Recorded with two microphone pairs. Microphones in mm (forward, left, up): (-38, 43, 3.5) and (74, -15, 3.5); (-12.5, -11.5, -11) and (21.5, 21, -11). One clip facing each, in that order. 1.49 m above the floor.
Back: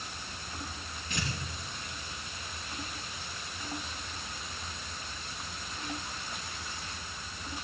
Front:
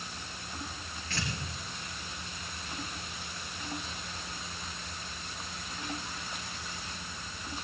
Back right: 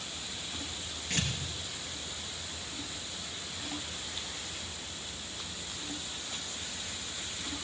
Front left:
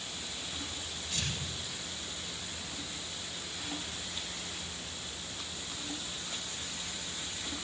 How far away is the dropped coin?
I don't hear a dropped coin.